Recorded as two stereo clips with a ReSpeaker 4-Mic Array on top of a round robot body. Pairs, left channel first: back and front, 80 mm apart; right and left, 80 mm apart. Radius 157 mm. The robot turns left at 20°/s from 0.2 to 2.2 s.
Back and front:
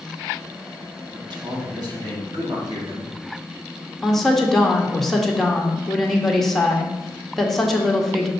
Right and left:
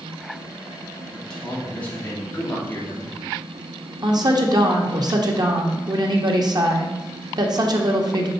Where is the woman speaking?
95° left, 1.4 m.